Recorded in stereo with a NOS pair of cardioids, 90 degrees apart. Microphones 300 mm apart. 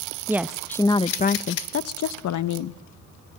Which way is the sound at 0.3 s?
10° right.